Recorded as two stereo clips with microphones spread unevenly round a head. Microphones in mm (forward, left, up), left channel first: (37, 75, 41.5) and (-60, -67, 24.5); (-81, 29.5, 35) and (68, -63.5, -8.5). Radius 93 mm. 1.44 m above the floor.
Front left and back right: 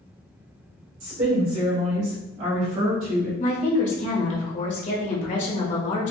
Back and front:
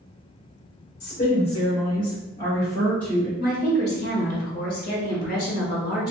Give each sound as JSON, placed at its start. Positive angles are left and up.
{"t": 1.0, "sound": "a woman speaking", "azimuth_deg": -170, "distance_m": 1.6}
{"t": 3.4, "sound": "a woman speaking", "azimuth_deg": 105, "distance_m": 1.4}